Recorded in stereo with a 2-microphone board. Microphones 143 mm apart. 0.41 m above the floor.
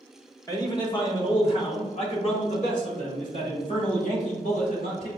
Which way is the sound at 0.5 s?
25° left (ahead or behind).